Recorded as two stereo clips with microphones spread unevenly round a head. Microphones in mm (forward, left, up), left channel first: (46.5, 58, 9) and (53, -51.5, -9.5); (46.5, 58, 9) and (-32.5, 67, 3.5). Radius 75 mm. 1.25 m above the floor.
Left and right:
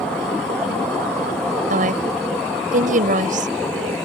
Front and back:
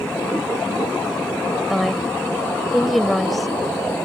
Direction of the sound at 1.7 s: 95° right.